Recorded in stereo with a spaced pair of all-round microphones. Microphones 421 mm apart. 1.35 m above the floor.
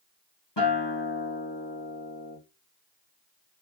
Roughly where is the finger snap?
No finger snap in this recording.